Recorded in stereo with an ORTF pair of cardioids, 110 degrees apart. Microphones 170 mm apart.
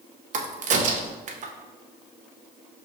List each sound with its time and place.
0.3 s a crack: 45° right, 0.7 m